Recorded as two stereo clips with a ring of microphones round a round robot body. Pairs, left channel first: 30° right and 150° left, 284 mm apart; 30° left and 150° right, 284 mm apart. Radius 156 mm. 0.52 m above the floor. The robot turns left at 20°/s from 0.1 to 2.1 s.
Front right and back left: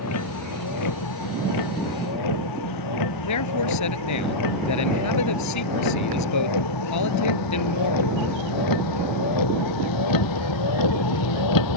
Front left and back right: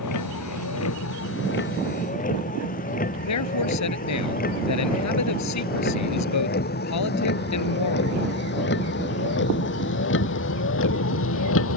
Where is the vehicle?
5° left; by 11.8 s 15° right.